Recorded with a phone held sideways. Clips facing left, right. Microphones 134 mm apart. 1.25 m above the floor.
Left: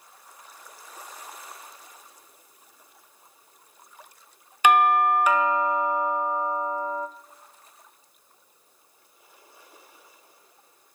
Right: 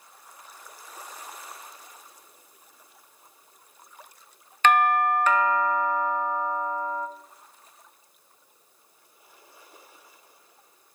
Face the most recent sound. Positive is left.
turn(degrees=10)  # may be behind; listen again after turning